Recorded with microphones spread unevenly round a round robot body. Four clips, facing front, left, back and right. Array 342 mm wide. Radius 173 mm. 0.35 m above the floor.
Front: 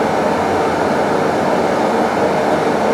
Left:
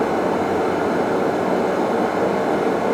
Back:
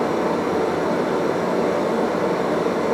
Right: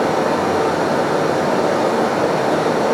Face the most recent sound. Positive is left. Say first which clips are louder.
# right 2 dB, front 6 dB
turn(degrees=-15)